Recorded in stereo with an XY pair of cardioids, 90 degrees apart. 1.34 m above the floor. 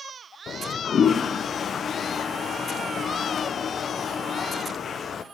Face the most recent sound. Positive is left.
turn(degrees=55)